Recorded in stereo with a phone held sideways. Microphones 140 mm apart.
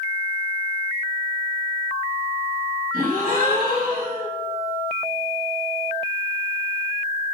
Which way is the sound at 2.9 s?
75° right (ahead or behind).